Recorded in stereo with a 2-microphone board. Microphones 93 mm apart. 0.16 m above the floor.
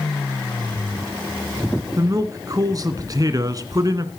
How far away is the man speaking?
About 1.5 m.